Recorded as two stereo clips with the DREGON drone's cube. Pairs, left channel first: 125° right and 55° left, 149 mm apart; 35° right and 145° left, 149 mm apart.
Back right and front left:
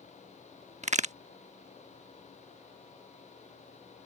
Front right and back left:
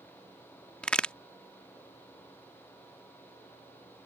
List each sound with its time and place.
0.8 s a crack: 45° left